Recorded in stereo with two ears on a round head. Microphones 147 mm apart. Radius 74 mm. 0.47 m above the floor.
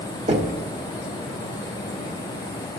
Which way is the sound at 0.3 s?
40° right (ahead or behind).